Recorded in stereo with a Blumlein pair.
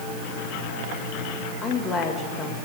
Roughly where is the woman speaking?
Ahead.